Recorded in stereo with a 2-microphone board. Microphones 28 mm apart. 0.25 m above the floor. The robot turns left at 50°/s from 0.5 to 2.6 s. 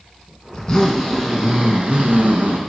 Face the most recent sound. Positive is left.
turn(degrees=-75)